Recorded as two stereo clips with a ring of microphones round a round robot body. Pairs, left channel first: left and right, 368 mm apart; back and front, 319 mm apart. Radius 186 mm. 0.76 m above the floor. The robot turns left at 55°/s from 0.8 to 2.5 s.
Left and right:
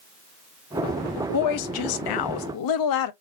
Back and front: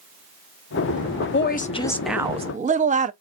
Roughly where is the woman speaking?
Behind left.